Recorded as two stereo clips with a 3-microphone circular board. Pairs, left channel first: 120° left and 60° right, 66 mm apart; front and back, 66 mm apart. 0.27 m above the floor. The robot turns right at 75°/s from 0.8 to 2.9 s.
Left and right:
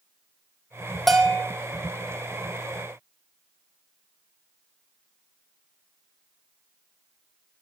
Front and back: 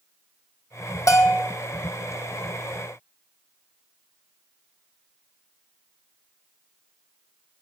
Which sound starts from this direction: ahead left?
A bell, at 1.1 s.